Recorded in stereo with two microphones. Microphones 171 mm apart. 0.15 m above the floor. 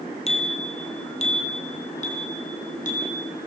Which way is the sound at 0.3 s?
40° left (ahead or behind).